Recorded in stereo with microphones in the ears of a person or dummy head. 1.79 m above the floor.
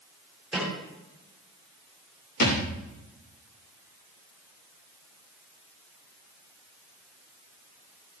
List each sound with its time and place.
0.5 s a snare drum: 5° right (ahead or behind), 7.5 m
2.4 s a thud: 50° left (ahead or behind), 5 m